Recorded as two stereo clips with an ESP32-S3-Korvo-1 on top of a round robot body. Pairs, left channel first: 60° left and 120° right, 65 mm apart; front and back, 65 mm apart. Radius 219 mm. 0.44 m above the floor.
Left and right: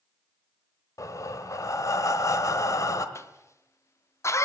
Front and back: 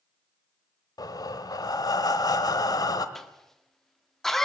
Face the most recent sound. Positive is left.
turn(degrees=85)